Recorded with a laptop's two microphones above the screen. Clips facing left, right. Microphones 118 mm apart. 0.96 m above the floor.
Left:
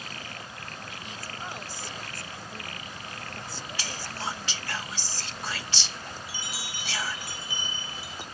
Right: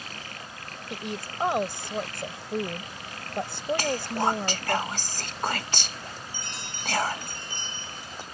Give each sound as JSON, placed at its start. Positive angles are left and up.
{"t": 0.9, "sound": "a woman speaking", "side_deg": -65}
{"t": 3.8, "sound": "whispering", "side_deg": -50}
{"t": 6.3, "sound": "a chime", "side_deg": 5}